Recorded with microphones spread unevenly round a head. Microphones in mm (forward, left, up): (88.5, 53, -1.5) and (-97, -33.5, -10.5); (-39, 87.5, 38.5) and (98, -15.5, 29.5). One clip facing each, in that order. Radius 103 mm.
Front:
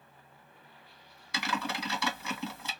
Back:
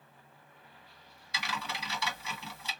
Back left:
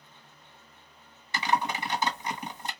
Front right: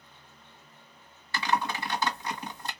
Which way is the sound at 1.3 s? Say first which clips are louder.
Front 6 dB, back left 1 dB; 70° left.